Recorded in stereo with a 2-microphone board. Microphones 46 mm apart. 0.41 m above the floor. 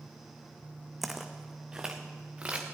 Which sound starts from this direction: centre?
Footsteps, at 1.0 s.